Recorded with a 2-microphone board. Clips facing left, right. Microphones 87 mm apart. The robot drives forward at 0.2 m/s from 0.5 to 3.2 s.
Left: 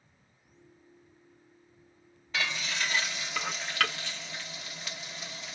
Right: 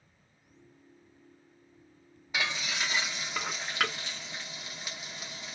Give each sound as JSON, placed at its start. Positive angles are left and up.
{"t": 2.3, "sound": "frying", "side_deg": -15, "distance_m": 0.8}